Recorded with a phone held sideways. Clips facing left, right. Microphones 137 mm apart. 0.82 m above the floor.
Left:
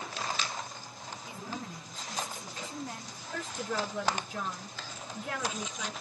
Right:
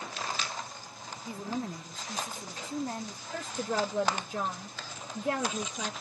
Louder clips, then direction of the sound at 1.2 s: Right 7 dB; 35° right (ahead or behind).